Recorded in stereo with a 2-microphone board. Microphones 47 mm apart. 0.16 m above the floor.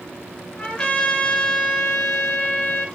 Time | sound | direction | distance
0.6 | a trumpet | 25° left (ahead or behind) | 1.9 m